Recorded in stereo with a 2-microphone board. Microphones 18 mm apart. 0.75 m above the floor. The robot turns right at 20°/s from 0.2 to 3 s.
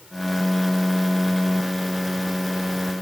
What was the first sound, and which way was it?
Only background noise.